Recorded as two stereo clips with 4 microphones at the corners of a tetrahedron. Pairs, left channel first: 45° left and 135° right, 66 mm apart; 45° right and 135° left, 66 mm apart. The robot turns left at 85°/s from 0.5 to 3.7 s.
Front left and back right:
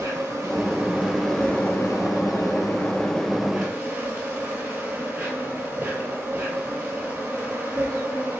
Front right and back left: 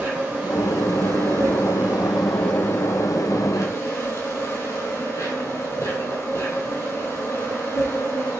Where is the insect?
160° right, 1.0 m; by 8.4 s 75° right, 1.0 m.